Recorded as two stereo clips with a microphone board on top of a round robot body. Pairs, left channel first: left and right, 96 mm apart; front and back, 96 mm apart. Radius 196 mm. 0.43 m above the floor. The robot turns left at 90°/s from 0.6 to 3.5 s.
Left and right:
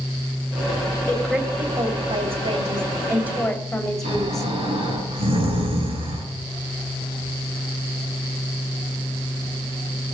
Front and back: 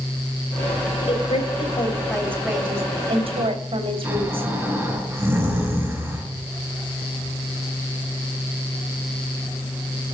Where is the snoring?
115° right, 4.5 m.